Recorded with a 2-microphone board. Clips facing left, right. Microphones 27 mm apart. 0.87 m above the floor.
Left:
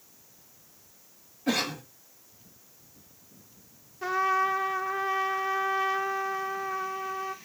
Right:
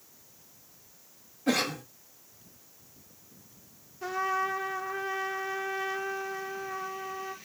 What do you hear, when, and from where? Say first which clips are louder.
1.5 s a cough: even; 5° left (ahead or behind), 1.5 m
4.0 s a trumpet: left 4 dB; 15° left (ahead or behind), 0.6 m